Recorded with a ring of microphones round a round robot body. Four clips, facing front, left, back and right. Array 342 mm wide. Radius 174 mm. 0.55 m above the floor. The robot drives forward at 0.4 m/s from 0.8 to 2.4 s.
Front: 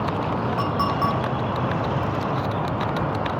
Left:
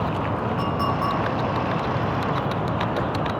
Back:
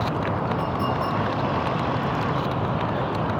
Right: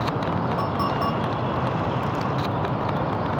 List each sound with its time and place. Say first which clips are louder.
0.6 s a clink: even, front 2 dB; 15° right, 4.5 m